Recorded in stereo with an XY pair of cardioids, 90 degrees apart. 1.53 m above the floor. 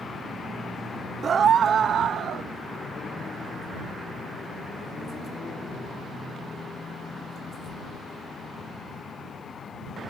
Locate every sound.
1.2 s a scream: 50° right; by 2.5 s 70° right